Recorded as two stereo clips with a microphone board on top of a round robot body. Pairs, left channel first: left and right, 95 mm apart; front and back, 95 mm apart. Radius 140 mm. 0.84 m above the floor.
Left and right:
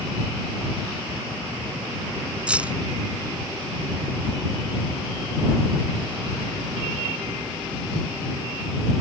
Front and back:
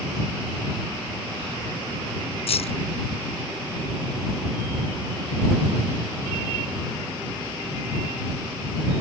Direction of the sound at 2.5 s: 10° right.